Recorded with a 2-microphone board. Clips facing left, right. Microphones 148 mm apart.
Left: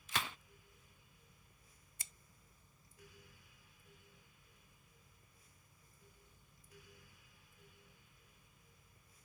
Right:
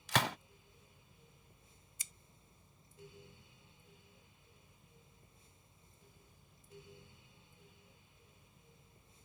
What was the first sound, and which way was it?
A gunshot, 80° right.